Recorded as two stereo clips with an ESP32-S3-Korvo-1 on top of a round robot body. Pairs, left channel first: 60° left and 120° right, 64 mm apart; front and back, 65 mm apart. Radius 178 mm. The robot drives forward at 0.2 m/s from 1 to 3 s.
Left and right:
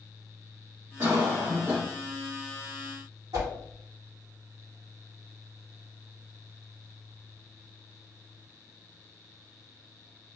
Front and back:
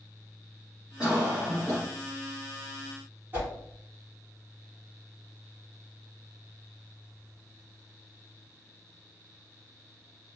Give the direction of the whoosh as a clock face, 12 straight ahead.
4 o'clock.